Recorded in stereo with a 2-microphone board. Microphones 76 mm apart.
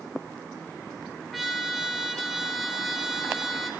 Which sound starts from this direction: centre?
A trumpet, at 1.3 s.